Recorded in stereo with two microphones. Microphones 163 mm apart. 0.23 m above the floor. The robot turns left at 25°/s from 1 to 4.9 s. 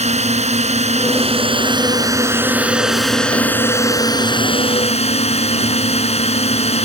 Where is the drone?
130° right; by 6.9 s 135° left.